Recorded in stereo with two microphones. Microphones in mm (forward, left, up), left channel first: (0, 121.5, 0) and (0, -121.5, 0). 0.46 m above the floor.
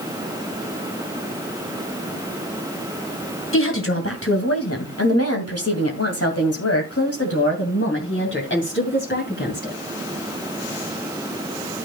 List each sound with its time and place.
3.5 s a woman speaking: 55° left (ahead or behind), 2.5 m; by 9.8 s 45° left (ahead or behind), 3 m